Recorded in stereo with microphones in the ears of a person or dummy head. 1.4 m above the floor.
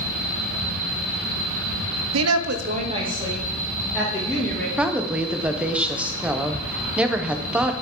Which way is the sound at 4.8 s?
10° right (ahead or behind).